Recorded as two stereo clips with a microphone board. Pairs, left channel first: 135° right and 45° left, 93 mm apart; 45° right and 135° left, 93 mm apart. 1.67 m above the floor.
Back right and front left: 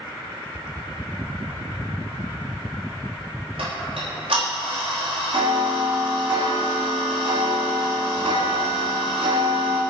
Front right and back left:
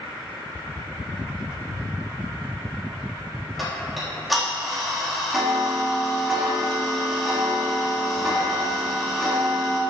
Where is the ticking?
45° left, 4 m.